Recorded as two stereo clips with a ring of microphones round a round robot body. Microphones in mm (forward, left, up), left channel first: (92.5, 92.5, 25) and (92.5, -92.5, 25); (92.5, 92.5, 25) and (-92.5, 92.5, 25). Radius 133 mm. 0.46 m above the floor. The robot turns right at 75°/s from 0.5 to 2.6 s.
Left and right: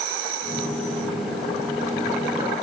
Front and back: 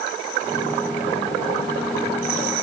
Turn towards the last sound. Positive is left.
No sound to turn to.